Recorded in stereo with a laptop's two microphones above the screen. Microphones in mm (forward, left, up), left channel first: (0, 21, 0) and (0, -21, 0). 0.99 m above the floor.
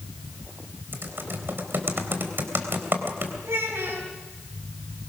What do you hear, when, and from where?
0.9 s typing on a keyboard: 55° right (ahead or behind), 3.5 m
3.4 s a child speaking: 80° right, 5.5 m